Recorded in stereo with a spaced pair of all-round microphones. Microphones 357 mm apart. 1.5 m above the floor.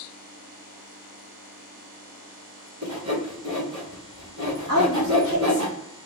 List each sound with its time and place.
2.8 s sawing: 50° right (ahead or behind), 1.4 m
4.7 s a woman speaking: 65° right (ahead or behind), 1.4 m